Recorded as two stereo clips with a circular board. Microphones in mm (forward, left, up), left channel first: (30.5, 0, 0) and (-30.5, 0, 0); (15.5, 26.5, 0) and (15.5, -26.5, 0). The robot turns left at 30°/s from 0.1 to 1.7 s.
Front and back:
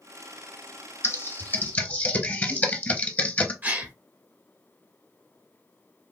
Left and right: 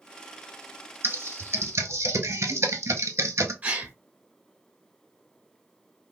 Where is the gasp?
140° right, 0.8 m.